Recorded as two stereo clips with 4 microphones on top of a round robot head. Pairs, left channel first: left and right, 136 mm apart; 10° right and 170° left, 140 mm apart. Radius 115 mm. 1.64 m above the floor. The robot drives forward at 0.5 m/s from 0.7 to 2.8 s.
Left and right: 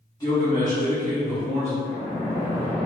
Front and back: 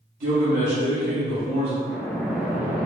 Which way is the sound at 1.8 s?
20° left.